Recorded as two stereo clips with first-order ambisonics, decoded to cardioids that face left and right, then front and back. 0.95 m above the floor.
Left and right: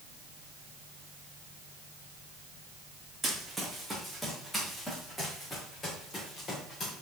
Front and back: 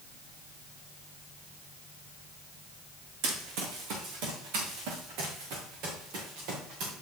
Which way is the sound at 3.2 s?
175° right.